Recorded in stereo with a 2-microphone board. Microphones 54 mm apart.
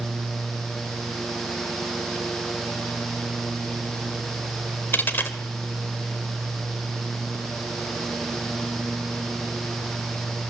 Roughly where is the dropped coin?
Left.